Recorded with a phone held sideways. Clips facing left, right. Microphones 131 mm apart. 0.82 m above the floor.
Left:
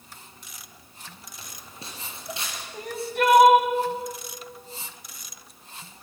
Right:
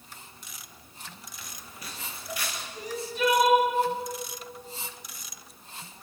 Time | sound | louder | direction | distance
1.4 | footsteps | left 3 dB | 30° left (ahead or behind) | 5 m
2.7 | crying | left 5 dB | 60° left (ahead or behind) | 2 m